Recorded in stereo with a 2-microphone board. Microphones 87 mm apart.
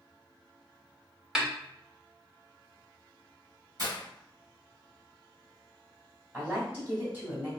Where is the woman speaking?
20° right (ahead or behind), 1.6 m.